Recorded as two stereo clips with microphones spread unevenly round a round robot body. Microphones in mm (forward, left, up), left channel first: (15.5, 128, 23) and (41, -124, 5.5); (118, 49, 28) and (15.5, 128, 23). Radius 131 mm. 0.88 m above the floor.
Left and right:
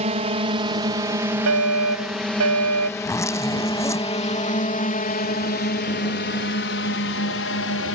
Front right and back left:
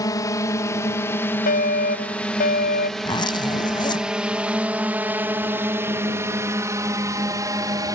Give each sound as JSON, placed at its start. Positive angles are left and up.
{"t": 0.0, "sound": "a drone", "azimuth_deg": -65}
{"t": 1.5, "sound": "a fire alarm", "azimuth_deg": -60}
{"t": 3.0, "sound": "a zipper", "azimuth_deg": 15}